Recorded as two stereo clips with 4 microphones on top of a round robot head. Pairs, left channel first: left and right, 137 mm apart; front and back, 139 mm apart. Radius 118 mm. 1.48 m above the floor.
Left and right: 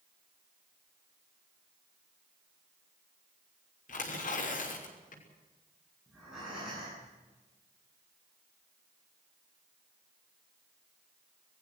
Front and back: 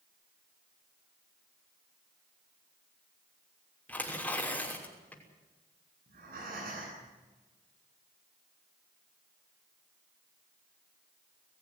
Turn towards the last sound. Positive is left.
turn(degrees=-175)